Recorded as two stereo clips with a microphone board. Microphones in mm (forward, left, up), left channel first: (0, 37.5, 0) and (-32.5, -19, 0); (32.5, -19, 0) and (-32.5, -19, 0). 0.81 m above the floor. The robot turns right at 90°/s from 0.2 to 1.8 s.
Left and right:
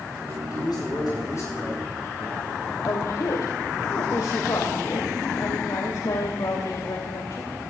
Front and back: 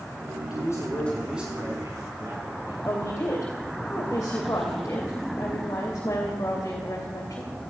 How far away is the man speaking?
About 7 m.